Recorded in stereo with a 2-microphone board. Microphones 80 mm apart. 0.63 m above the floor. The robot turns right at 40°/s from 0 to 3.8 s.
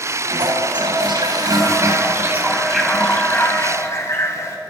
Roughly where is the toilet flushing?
Right.